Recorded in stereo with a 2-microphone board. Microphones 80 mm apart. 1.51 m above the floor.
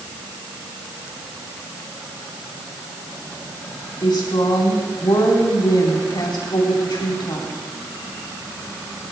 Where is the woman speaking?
70° left (ahead or behind), 4 m.